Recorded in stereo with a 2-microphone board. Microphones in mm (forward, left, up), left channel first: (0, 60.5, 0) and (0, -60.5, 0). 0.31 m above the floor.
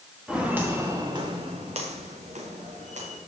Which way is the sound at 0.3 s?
5° right (ahead or behind).